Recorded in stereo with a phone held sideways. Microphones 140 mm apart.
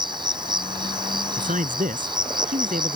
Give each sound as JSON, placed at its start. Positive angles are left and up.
{"t": 0.0, "sound": "an insect", "side_deg": -35}
{"t": 1.4, "sound": "a man speaking", "side_deg": -70}